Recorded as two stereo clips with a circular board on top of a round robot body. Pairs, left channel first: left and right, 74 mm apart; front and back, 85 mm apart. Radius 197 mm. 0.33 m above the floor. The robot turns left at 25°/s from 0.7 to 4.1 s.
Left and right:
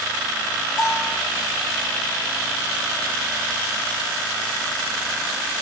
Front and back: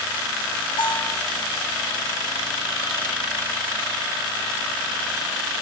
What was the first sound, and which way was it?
A bell, 5° left.